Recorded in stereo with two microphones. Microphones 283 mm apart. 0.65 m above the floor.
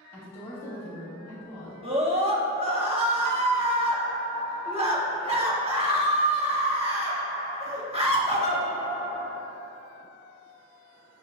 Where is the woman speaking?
15° left (ahead or behind), 1.1 m.